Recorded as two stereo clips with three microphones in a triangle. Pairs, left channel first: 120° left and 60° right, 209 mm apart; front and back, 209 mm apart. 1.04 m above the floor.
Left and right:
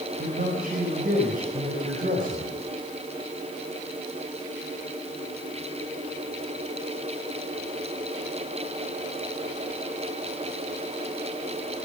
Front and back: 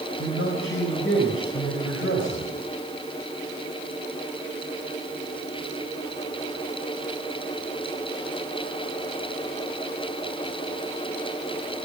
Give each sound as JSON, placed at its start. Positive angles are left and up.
{"t": 0.2, "sound": "a man speaking", "azimuth_deg": -15, "distance_m": 4.5}